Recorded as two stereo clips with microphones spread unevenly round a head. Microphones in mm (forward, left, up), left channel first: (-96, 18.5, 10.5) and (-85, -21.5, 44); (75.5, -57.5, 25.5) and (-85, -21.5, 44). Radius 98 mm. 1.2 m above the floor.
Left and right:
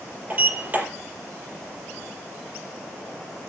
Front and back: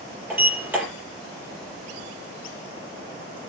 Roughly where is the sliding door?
Behind right.